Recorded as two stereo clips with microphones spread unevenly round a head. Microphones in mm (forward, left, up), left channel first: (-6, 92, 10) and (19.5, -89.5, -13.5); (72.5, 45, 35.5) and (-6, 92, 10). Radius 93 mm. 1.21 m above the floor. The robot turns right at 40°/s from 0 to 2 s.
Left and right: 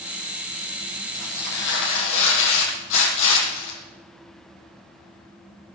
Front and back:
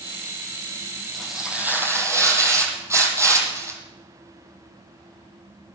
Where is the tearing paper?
55° left, 6.5 m; by 3.8 s 90° left, 6.5 m.